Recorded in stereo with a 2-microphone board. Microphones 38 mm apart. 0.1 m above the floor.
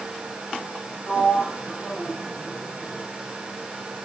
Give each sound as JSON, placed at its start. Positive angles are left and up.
{"t": 1.1, "sound": "a sliding door", "side_deg": 5, "distance_m": 4.5}